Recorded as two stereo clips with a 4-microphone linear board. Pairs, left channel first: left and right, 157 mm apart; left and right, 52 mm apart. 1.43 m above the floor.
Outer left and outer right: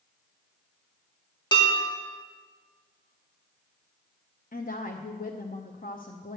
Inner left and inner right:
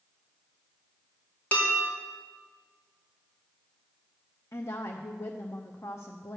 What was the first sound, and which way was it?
Dishes clattering, 25° left (ahead or behind).